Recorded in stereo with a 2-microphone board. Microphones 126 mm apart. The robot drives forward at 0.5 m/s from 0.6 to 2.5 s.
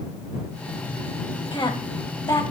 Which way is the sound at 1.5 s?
40° left (ahead or behind).